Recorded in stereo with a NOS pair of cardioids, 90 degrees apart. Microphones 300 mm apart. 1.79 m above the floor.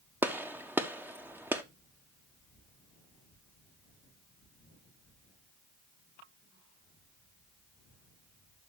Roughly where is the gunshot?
Ahead.